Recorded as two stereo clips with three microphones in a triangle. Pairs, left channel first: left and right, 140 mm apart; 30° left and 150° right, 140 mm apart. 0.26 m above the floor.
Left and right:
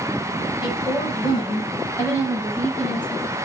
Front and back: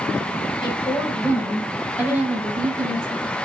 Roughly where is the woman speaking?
Ahead left.